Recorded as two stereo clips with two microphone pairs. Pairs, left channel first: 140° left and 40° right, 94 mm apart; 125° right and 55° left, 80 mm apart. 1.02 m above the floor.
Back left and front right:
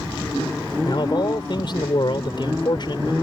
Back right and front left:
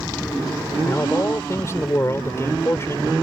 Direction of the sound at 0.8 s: 175° left.